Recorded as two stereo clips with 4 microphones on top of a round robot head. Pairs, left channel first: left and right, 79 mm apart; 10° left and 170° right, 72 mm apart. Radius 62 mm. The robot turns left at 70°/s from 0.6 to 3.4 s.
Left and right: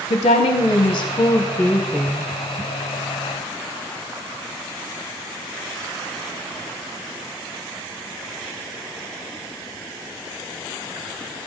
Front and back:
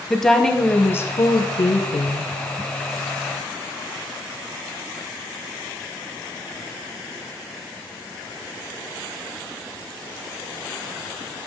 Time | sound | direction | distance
0.1 | a woman speaking | 95° left | 0.9 m